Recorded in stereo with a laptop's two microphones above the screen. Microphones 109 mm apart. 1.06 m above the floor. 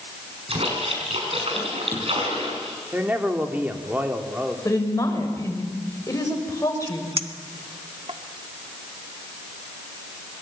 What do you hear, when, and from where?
0.5 s a splash: 65° right (ahead or behind), 5 m
2.9 s a man speaking: 15° right (ahead or behind), 3 m
4.7 s a woman speaking: 30° left (ahead or behind), 5.5 m
7.2 s a clink: 60° right (ahead or behind), 1.6 m